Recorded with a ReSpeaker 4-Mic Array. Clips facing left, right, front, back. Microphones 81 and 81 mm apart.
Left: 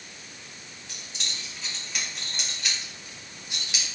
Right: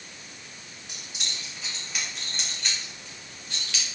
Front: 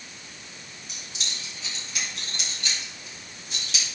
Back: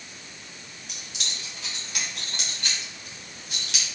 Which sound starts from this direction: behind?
Keys jangling, at 0.9 s.